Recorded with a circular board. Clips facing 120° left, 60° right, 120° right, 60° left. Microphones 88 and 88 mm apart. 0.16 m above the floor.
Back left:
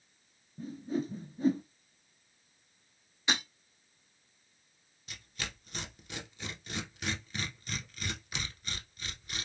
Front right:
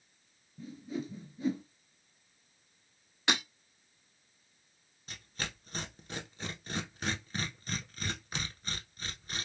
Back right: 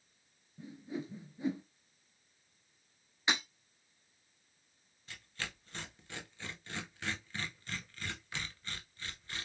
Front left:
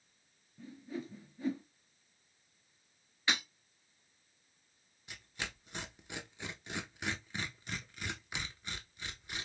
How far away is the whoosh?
About 0.5 m.